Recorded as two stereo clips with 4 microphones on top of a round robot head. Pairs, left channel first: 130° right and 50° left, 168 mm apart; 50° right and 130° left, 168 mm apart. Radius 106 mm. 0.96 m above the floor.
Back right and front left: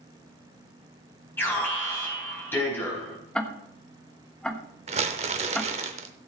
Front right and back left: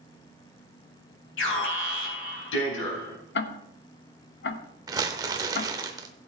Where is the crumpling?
75° left, 0.7 m.